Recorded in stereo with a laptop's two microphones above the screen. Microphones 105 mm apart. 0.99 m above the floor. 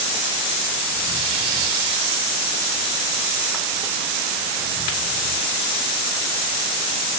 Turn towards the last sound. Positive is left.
No sound to turn to.